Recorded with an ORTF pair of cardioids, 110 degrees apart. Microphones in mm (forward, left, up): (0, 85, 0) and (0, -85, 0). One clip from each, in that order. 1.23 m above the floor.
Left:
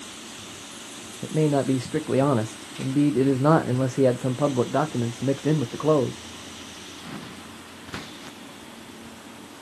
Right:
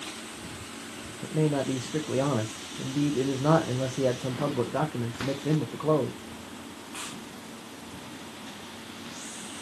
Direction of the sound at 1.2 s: 30° left.